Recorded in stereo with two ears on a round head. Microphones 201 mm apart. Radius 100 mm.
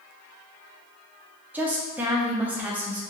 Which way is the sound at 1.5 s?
10° right (ahead or behind).